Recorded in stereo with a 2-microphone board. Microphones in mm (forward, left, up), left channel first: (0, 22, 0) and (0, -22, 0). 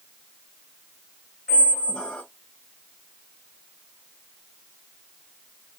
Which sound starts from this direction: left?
A squeak, at 1.5 s.